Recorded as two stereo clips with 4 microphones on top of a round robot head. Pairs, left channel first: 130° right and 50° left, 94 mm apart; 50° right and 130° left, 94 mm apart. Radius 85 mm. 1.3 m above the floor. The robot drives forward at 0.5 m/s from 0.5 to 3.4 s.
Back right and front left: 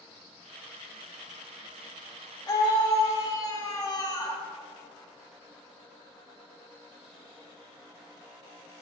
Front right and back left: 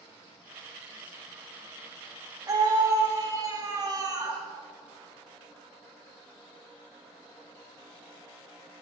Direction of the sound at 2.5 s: Straight behind.